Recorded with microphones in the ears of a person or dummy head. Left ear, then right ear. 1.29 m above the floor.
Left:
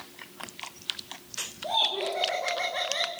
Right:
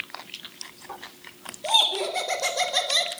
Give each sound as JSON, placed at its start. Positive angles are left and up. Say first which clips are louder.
{"t": 1.6, "sound": "laughter", "louder": "right 5 dB", "side_deg": -65, "distance_m": 4.0}